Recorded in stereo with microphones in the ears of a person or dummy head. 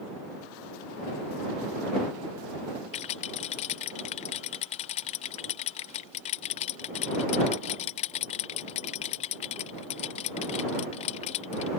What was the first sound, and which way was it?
A rattle, 40° left (ahead or behind).